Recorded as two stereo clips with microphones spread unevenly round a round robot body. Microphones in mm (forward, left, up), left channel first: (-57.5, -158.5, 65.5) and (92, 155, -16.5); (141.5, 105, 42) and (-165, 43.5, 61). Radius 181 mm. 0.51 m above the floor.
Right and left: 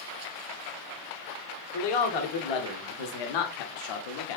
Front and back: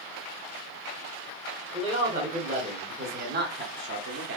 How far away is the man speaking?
About 2.5 m.